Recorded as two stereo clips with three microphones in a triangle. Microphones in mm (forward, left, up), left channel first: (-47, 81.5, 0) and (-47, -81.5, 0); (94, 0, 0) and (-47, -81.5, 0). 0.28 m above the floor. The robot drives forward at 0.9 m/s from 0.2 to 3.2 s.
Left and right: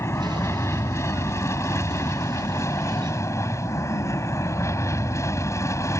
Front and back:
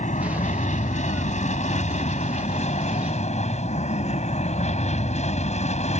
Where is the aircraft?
20° left; by 6.0 s 25° left.